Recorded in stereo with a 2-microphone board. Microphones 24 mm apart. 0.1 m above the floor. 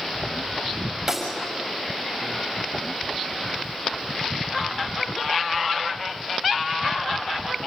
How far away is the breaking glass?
About 6 m.